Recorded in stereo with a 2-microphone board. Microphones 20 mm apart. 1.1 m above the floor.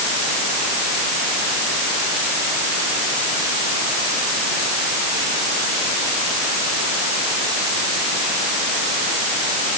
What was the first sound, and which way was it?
Only background noise.